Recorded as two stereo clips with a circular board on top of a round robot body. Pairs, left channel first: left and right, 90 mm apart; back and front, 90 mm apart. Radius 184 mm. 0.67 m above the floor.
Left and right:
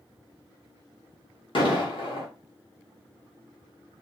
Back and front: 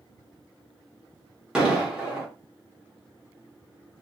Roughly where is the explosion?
Left.